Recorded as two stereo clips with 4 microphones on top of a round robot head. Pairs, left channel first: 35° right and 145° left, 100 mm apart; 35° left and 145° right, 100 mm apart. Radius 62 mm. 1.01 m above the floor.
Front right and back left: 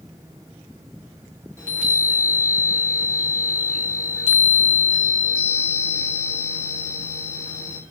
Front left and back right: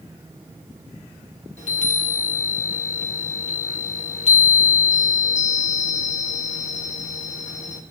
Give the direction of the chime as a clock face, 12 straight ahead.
11 o'clock.